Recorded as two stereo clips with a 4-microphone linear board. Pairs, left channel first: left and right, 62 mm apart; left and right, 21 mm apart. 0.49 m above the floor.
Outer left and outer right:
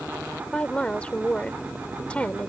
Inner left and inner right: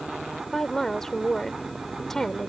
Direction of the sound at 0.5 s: 20° left (ahead or behind).